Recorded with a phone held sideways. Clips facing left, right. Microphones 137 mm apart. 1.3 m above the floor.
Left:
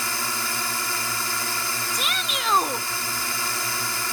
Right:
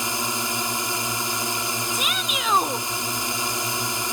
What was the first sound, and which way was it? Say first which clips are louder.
A drone: right 3 dB; 20° right (ahead or behind).